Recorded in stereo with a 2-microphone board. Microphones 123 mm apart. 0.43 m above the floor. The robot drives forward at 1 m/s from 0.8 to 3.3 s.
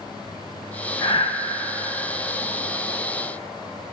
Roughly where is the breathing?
Left.